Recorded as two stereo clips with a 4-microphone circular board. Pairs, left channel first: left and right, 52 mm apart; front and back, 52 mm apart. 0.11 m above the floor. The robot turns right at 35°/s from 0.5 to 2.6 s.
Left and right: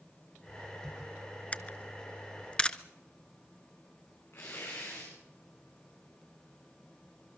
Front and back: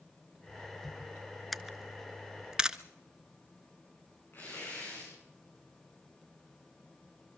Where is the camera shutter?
85° left, 0.7 m; by 2.8 s 125° left, 0.7 m.